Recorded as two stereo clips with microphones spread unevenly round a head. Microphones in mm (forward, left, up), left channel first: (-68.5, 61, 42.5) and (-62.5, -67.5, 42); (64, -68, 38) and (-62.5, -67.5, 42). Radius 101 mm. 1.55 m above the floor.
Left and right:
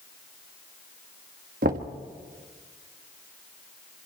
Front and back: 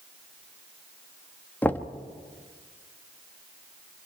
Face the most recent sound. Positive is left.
turn(degrees=-75)